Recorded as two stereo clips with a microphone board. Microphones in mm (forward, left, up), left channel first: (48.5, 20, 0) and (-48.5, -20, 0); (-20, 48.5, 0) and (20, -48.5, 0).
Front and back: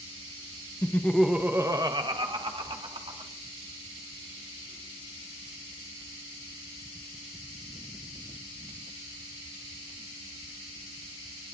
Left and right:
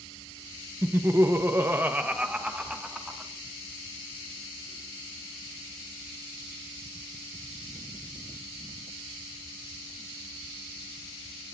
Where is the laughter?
25° right, 1.0 m; by 3.3 s 150° right, 2.5 m.